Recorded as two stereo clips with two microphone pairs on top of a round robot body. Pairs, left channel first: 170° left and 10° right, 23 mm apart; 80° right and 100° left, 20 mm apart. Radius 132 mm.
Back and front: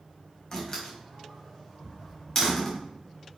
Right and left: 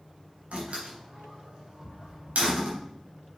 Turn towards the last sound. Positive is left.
turn(degrees=100)